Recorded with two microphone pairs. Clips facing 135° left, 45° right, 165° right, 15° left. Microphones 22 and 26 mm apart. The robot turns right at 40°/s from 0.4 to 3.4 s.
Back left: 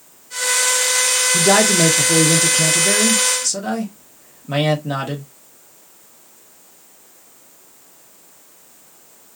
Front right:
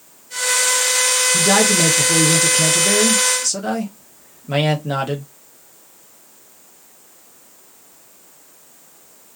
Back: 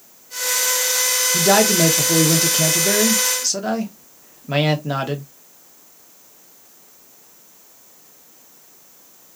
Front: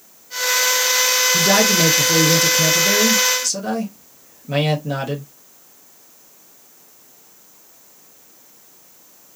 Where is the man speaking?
145° left, 0.8 m; by 5.2 s 135° right, 0.8 m.